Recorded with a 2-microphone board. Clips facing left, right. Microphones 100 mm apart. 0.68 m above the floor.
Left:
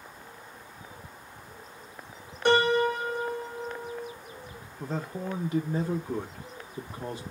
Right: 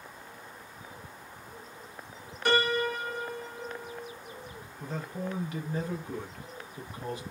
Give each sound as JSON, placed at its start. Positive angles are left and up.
{"t": 2.5, "sound": "a piano", "side_deg": 30, "distance_m": 1.3}
{"t": 4.8, "sound": "a man speaking", "side_deg": 30, "distance_m": 0.6}